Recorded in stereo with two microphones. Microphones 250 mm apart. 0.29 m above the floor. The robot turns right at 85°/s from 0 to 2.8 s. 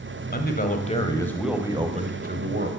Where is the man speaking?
85° left, 1.5 m; by 2.7 s 70° right, 1.5 m.